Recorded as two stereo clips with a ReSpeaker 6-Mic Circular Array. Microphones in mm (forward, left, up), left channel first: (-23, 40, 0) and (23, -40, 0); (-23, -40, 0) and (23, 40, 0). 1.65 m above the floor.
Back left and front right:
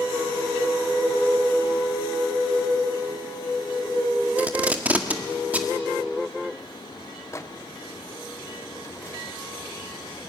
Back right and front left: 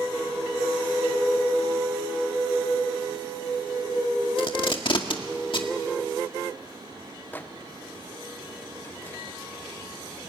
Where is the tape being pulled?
130° right, 1.8 m.